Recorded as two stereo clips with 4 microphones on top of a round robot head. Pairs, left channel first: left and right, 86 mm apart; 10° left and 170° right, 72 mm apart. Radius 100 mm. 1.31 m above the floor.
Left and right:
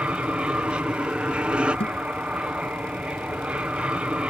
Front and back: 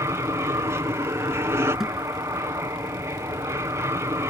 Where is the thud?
105° left.